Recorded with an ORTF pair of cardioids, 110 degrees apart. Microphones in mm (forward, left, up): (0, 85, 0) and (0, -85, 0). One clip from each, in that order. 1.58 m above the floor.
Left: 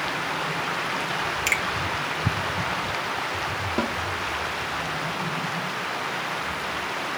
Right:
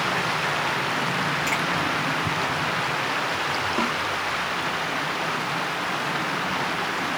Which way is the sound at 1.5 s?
60° left.